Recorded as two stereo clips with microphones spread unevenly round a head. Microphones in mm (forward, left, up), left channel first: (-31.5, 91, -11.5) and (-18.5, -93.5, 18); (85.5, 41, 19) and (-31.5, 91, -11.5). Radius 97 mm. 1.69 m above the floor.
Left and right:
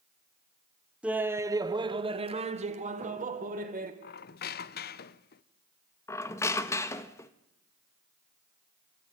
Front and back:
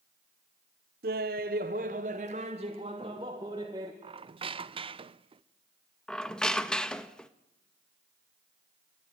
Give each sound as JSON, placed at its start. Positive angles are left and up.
{"t": 1.0, "sound": "laughter", "azimuth_deg": -170, "distance_m": 1.0}
{"t": 4.0, "sound": "a squeak", "azimuth_deg": 110, "distance_m": 0.7}
{"t": 6.1, "sound": "a squeak", "azimuth_deg": 15, "distance_m": 1.0}